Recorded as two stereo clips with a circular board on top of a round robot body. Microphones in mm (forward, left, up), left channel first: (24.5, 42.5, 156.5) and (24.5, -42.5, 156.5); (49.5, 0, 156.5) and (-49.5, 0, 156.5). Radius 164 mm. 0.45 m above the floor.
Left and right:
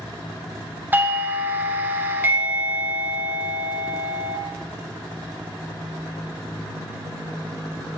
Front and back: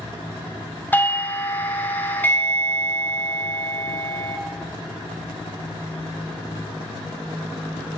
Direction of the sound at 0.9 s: 50° right.